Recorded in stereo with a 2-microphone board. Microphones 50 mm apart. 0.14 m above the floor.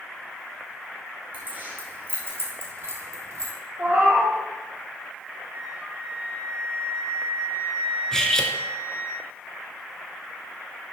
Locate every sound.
1.3 s keys jangling: 35° right (ahead or behind), 3 m; by 3.5 s 60° right (ahead or behind), 2 m
3.8 s a cat meowing: 35° right (ahead or behind), 3.5 m
5.5 s a flute: 65° right (ahead or behind), 3 m
8.1 s cutlery clinking: 10° left (ahead or behind), 1.0 m